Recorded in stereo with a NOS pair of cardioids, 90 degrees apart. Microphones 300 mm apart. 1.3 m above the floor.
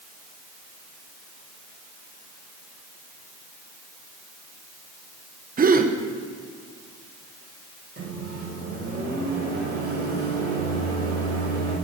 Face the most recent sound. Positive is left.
turn(degrees=-30)